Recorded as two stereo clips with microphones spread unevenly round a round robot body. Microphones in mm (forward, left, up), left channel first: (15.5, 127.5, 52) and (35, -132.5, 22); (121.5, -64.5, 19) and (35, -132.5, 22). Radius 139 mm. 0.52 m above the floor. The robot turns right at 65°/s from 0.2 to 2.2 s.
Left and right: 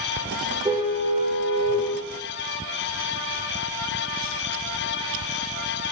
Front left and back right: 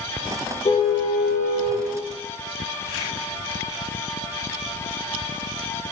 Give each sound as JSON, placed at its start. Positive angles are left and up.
{"t": 0.7, "sound": "a car horn", "azimuth_deg": -10, "distance_m": 6.5}